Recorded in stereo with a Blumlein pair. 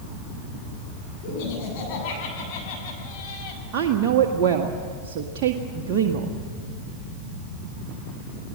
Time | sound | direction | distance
1.2 | laughter | 40° left | 8.5 m
3.7 | a woman speaking | 40° right | 1.7 m